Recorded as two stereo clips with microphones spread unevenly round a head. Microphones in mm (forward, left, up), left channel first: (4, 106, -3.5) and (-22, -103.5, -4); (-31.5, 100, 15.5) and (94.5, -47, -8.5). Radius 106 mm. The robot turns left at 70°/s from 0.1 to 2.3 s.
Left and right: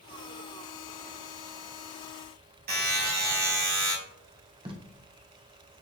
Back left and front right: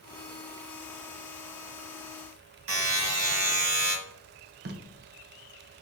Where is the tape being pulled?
30° right, 0.5 m.